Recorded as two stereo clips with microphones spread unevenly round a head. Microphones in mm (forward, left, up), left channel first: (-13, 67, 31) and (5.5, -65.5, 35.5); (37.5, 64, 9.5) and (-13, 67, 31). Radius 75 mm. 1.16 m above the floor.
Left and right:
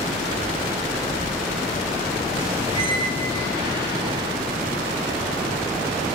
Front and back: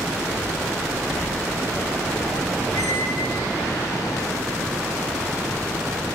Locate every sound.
2.7 s a squeak: 20° right, 6.5 m